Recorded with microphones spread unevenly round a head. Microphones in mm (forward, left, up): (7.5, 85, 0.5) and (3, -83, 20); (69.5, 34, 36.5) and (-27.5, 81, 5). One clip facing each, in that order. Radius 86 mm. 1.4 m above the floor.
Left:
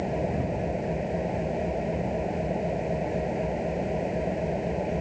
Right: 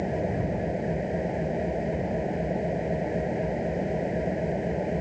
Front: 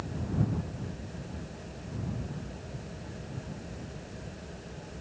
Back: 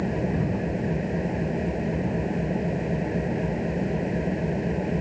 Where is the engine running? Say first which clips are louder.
Even, back 8 dB; 175° right.